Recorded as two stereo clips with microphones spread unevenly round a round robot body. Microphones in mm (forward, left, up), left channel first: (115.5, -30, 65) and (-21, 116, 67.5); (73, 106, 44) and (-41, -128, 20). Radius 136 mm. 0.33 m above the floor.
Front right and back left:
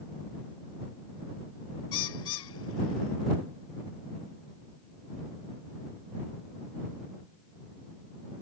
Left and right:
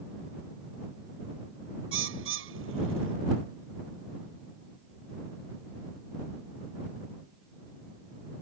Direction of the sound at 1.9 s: 75° right.